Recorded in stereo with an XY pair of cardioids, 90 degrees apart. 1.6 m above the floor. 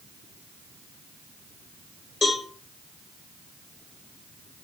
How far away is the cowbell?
About 1.7 m.